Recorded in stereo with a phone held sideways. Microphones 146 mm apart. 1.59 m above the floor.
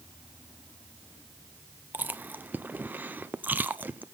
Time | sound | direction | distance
1.9 | chewing | 10° right (ahead or behind) | 0.6 m